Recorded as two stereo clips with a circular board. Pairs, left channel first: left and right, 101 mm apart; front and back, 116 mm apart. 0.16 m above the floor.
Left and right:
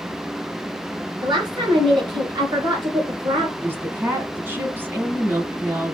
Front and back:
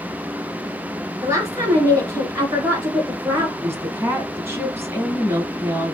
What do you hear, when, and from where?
1.2 s a woman speaking: 120° right, 2 m
3.6 s a woman speaking: 135° right, 1.3 m